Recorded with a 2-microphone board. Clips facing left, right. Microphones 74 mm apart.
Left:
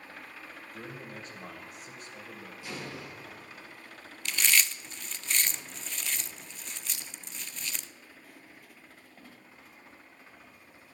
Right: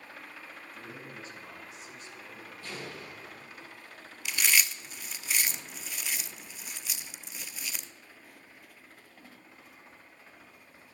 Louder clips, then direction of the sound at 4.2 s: Even; 10° right (ahead or behind).